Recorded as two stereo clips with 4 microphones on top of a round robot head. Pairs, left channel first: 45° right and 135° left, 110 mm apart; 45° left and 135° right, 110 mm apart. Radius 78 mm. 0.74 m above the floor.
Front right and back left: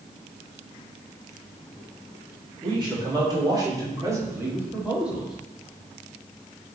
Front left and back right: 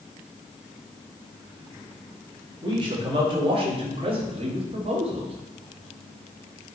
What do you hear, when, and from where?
2.6 s a man speaking: straight behind, 4 m; by 5.3 s 140° right, 2 m